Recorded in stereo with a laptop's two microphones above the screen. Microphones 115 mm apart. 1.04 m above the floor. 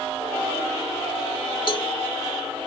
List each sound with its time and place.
1.7 s a cowbell: 50° left (ahead or behind)